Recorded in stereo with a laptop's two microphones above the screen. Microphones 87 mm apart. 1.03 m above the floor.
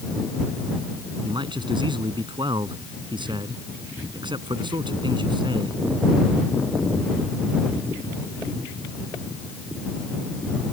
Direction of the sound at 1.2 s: 60° right (ahead or behind).